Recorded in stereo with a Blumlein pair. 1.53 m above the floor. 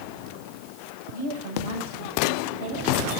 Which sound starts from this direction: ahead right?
A woman speaking, at 1.1 s.